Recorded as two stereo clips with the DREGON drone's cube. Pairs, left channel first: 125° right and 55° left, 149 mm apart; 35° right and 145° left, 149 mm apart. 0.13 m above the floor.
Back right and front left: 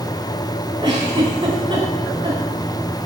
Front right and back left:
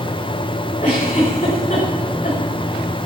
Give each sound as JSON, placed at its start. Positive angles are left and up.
{"t": 0.8, "sound": "a giggle", "azimuth_deg": 0, "distance_m": 6.5}